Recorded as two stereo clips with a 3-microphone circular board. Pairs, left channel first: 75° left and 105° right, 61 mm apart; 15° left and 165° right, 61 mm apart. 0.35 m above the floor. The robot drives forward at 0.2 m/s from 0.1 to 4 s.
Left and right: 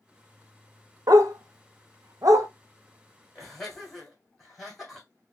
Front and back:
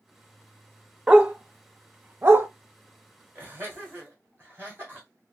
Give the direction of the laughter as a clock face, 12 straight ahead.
7 o'clock.